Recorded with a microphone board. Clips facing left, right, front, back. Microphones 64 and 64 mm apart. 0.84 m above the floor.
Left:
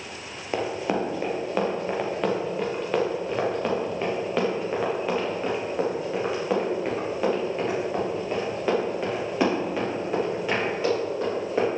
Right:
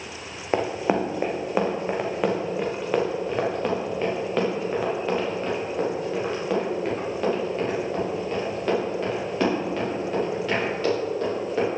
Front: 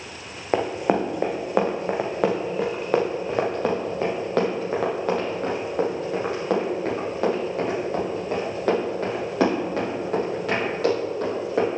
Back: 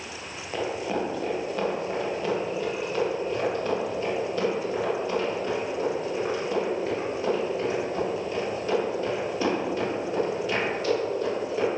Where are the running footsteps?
30° right, 1.9 m; by 11.7 s 15° left, 8.5 m.